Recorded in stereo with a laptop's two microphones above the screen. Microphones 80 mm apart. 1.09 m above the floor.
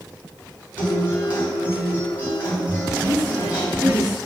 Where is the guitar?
20° right (ahead or behind), 1.8 m.